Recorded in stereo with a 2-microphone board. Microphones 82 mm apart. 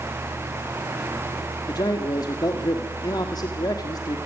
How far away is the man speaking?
About 1.5 m.